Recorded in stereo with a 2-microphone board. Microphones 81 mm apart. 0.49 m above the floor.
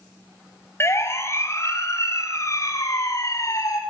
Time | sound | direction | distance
0.8 | a siren | 30° left (ahead or behind) | 4 m